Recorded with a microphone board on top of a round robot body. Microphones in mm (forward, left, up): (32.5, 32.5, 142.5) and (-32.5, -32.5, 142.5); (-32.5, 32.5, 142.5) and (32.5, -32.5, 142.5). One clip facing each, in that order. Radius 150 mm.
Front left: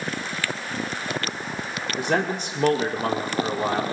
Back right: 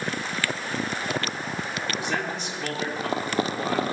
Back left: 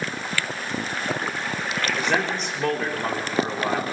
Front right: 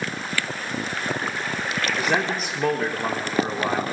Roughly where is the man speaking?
Ahead left.